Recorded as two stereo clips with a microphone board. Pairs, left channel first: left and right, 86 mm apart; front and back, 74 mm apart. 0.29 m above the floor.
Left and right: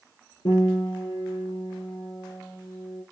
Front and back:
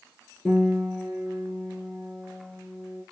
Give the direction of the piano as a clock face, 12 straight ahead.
9 o'clock.